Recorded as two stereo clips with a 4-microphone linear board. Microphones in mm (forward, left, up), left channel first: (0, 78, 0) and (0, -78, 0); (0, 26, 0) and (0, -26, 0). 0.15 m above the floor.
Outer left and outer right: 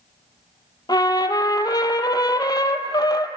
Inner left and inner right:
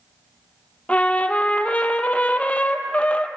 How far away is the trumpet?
About 0.7 m.